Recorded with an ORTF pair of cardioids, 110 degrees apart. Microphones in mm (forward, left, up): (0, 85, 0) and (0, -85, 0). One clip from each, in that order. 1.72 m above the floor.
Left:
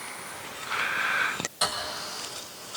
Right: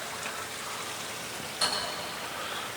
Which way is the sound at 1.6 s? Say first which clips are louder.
Left 1 dB; 30° left.